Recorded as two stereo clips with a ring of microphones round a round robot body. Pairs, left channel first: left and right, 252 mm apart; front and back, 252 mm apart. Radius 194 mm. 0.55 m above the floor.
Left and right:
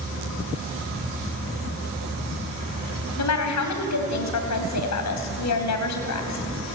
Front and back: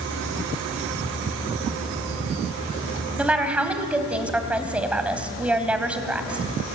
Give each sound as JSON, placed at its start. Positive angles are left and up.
{"t": 3.2, "sound": "a woman speaking", "azimuth_deg": 95, "distance_m": 3.5}